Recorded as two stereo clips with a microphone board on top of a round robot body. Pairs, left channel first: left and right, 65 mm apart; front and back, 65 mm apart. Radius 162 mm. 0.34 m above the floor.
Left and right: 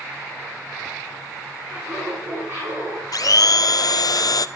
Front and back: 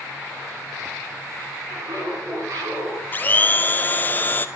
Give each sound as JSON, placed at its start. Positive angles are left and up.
{"t": 1.6, "sound": "laughter", "azimuth_deg": -150, "distance_m": 6.5}
{"t": 3.1, "sound": "a blender", "azimuth_deg": 60, "distance_m": 0.6}